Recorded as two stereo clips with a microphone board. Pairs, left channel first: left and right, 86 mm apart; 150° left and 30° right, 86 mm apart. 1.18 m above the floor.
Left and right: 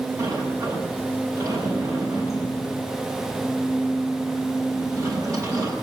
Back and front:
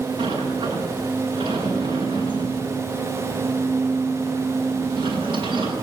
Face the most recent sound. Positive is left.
turn(degrees=-40)